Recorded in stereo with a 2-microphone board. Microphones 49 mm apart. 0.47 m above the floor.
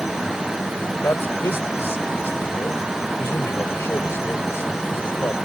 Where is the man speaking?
65° left (ahead or behind).